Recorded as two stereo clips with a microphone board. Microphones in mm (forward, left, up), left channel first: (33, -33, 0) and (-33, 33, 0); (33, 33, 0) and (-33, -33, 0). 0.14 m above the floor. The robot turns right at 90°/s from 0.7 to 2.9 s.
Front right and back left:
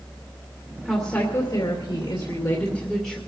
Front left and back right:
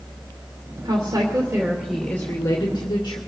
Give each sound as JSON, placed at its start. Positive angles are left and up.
{"t": 0.8, "sound": "a woman speaking", "azimuth_deg": -140, "distance_m": 2.5}